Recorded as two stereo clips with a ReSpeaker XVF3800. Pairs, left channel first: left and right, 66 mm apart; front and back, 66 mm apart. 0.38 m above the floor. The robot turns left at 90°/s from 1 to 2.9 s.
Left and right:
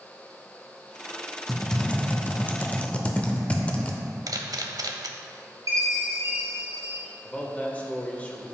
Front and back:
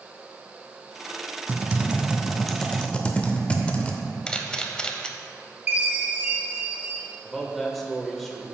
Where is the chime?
115° right, 2.5 m.